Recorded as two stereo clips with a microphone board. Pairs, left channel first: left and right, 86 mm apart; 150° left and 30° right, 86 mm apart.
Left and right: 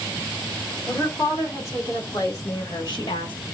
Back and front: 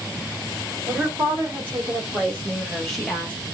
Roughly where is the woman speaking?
Ahead left.